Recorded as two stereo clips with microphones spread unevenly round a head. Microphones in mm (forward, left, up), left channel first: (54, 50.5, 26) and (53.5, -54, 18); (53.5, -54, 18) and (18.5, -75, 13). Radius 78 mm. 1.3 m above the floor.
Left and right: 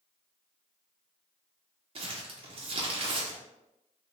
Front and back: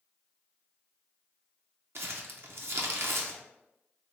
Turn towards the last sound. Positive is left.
turn(degrees=-135)